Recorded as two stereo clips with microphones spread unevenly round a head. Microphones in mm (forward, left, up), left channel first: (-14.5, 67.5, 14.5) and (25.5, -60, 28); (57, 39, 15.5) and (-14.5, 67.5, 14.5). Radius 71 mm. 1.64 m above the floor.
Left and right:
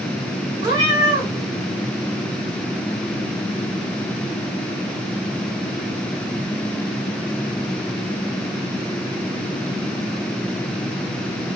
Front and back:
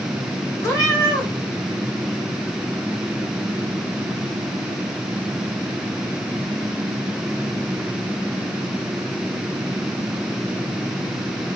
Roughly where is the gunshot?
No gunshot in this recording.